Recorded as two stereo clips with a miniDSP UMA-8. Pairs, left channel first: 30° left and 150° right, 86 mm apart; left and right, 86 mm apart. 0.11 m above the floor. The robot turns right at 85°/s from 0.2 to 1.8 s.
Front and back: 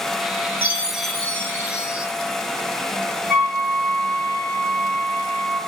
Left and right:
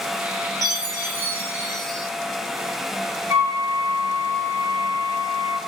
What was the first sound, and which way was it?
A chime, 95° right.